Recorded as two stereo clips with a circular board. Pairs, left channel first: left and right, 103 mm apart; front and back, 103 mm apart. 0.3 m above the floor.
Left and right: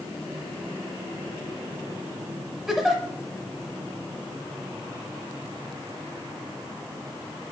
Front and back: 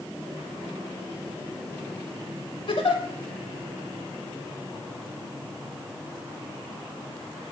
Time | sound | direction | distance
2.7 | a giggle | 5° right | 0.7 m